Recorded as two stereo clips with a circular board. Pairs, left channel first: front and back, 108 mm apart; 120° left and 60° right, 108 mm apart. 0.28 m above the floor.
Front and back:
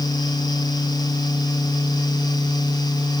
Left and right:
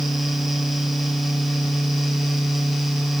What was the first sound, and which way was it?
Only background noise.